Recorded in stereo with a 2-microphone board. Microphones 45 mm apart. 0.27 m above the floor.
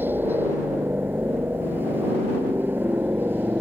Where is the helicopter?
50° right (ahead or behind).